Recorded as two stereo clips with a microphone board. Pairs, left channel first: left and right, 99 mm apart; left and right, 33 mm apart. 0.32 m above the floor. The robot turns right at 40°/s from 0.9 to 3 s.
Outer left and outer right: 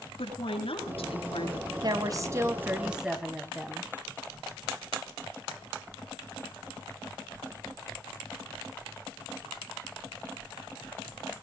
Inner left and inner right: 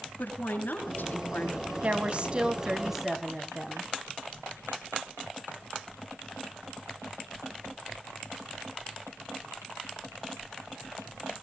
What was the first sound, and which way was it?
A woman speaking, 85° left.